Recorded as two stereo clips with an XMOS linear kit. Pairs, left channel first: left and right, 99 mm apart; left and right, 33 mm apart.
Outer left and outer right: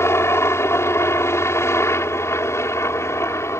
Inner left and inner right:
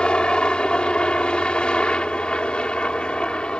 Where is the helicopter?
25° left (ahead or behind); by 3.6 s 30° left (ahead or behind).